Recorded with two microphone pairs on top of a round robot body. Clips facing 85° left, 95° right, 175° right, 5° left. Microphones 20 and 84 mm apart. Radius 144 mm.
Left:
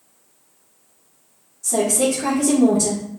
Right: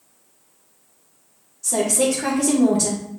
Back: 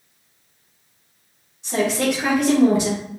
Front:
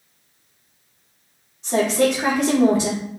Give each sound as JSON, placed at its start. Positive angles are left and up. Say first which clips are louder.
{"t": 1.6, "sound": "a woman speaking", "louder": "left 1 dB, front 2 dB", "azimuth_deg": -50, "distance_m": 2.0}